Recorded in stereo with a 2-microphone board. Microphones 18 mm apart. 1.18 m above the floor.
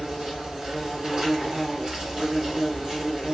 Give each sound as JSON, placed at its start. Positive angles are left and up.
{"t": 0.0, "sound": "an insect", "side_deg": -45, "distance_m": 1.2}